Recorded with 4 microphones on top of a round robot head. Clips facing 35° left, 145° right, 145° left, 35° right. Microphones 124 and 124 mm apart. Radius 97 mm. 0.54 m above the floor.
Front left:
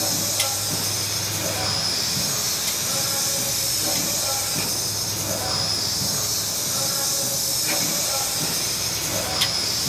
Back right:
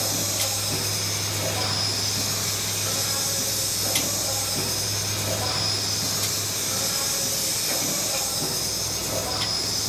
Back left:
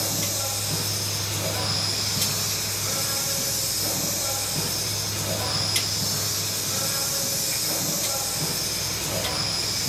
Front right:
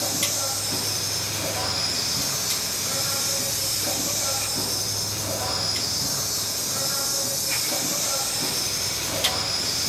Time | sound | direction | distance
0.0 | an insect | 75° left | 5 m